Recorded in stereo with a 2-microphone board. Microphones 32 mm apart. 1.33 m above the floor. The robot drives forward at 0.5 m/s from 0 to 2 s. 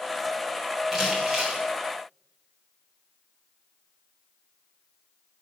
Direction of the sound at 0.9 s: 10° right (ahead or behind).